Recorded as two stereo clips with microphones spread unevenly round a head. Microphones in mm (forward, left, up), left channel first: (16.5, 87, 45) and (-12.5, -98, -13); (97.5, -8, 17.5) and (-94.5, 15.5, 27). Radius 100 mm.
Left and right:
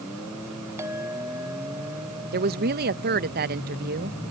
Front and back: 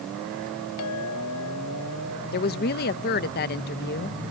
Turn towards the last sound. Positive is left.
turn(degrees=-50)